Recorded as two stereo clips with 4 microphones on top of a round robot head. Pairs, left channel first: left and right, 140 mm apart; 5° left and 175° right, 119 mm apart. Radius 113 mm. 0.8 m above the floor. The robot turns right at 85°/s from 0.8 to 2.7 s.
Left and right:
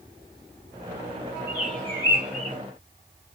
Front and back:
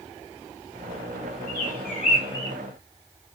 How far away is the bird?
About 1.2 m.